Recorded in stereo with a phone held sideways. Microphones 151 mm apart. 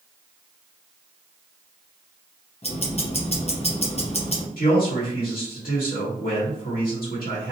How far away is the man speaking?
About 1.8 m.